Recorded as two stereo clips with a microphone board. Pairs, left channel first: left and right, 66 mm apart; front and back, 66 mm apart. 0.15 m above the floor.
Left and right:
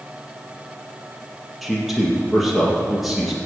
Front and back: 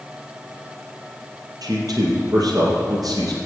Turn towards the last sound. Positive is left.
turn(degrees=-175)